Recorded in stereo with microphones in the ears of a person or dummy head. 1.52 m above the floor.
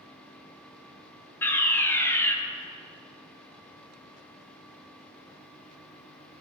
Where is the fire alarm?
10° left (ahead or behind), 2.5 m.